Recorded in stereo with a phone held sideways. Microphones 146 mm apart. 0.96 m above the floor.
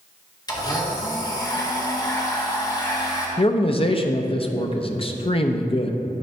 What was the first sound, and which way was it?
A blender, 30° left (ahead or behind).